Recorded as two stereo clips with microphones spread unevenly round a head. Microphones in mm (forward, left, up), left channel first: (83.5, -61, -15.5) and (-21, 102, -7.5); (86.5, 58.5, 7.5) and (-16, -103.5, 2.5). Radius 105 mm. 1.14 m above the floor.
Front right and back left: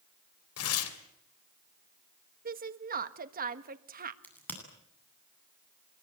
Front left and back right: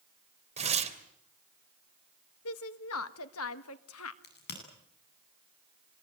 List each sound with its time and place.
0.6 s tearing paper: 65° right, 3 m
2.5 s a woman speaking: 80° left, 1.6 m
4.2 s a crack: 25° left, 9.5 m